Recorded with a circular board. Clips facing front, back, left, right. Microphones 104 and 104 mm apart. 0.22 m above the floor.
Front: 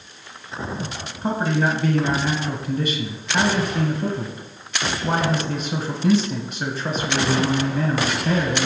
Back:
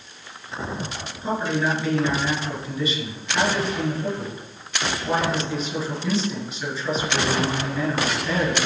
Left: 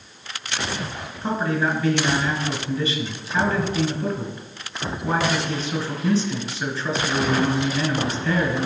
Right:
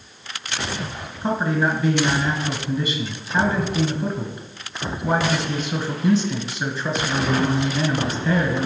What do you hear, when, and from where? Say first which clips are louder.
1.2 s a man speaking: front 2 dB, right 2 dB; 20° right, 2 m